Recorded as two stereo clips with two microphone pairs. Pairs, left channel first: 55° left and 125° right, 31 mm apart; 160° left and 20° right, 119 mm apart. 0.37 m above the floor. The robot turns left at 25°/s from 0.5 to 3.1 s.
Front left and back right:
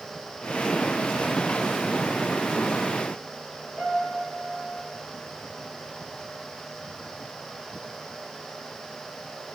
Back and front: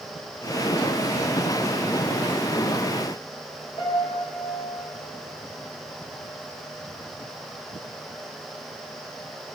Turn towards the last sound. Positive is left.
turn(degrees=-165)